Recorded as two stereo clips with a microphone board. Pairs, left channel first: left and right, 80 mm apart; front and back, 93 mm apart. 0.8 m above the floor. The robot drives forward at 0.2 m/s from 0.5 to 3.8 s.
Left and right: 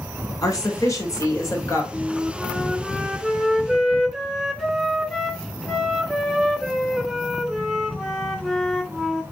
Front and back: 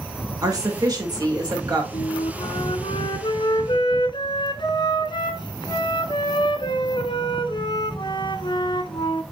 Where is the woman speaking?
135° left, 2.5 m.